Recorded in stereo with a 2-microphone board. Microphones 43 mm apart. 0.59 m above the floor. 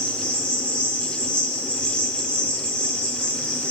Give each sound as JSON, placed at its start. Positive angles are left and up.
{"t": 0.0, "sound": "an insect", "side_deg": 25, "distance_m": 0.9}